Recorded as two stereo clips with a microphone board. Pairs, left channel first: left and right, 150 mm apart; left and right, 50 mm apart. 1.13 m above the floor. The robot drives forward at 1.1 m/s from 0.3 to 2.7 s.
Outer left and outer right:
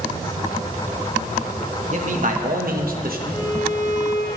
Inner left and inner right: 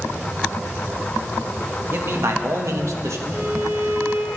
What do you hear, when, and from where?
1.9 s a man speaking: 50° right (ahead or behind), 1.8 m; by 3.2 s 70° right (ahead or behind), 1.5 m
3.3 s a violin: 65° right (ahead or behind), 6 m